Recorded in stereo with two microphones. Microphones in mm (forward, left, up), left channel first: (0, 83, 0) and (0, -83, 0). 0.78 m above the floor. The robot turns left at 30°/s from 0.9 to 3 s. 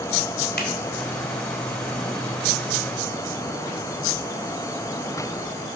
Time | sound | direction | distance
0.6 | a finger snap | 80° left | 2 m